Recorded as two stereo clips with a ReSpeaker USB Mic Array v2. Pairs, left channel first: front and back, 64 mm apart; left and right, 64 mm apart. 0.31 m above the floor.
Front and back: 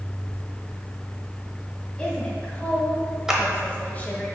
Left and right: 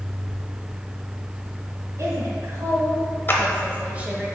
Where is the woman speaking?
75° right, 2 m; by 4.3 s 30° right, 1.3 m.